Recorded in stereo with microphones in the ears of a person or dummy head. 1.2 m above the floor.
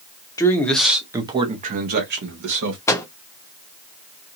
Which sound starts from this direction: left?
A man speaking, at 0.4 s.